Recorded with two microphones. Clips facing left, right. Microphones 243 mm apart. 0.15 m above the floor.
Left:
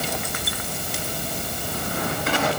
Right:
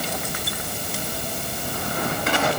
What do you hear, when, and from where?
Only background noise.